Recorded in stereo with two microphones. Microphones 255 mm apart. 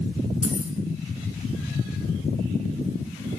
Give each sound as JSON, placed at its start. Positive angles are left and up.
{"t": 0.4, "sound": "keys jangling", "side_deg": -5, "distance_m": 1.1}